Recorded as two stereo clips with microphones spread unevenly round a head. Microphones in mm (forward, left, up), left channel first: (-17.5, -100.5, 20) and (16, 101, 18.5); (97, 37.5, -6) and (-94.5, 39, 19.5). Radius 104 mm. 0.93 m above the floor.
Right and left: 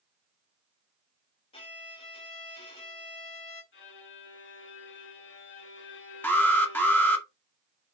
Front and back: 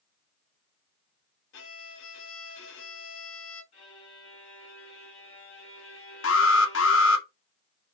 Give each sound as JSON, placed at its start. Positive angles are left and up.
{"t": 1.5, "sound": "a violin", "azimuth_deg": -35, "distance_m": 2.5}
{"t": 3.7, "sound": "a violin", "azimuth_deg": -65, "distance_m": 4.0}
{"t": 6.2, "sound": "an alarm", "azimuth_deg": -20, "distance_m": 1.6}